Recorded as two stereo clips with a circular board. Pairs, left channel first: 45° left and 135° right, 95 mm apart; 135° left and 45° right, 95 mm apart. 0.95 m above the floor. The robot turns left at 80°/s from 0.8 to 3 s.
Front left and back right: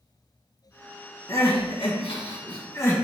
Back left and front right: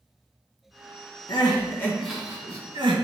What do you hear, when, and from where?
1.3 s crying: 105° left, 2.5 m; by 3.0 s 25° right, 2.5 m